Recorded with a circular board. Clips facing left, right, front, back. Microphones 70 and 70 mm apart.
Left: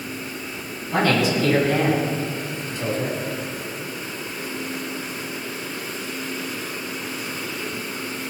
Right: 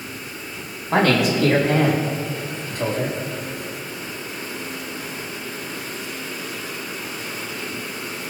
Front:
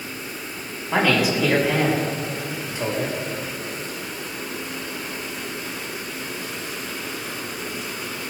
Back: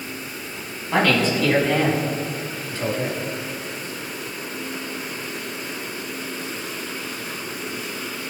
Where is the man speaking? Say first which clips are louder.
Right 2 dB, even; 85° right, 4.5 m; by 3.2 s 65° right, 4.5 m.